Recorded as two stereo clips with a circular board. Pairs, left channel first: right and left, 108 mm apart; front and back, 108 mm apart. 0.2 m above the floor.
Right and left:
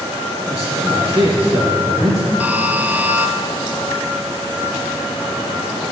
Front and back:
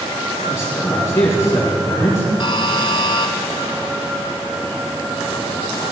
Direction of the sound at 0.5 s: 45° left.